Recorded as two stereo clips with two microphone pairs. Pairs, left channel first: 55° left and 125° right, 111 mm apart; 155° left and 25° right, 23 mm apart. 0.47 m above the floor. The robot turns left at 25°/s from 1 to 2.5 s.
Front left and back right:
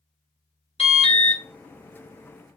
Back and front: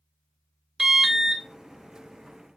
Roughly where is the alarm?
Ahead left.